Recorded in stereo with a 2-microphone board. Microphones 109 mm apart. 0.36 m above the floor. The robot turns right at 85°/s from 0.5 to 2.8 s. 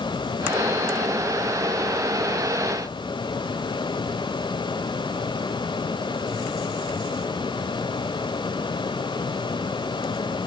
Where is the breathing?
No breathing in this recording.